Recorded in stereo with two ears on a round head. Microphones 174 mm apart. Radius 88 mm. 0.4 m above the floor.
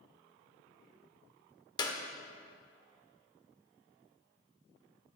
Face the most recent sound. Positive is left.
turn(degrees=20)  # may be behind; listen again after turning